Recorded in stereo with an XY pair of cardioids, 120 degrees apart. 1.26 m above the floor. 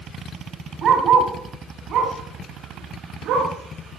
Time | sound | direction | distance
0.8 | a dog barking | 50° right | 3 m